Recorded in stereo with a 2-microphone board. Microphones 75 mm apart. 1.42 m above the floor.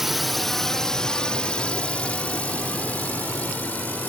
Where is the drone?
5° right (ahead or behind); by 4.1 s 20° left (ahead or behind).